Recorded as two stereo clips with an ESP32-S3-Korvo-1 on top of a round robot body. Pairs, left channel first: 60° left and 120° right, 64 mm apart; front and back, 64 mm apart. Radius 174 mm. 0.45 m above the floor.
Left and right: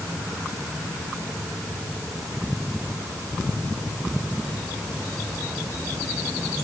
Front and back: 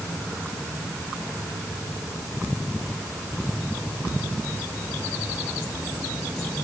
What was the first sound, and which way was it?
Only background noise.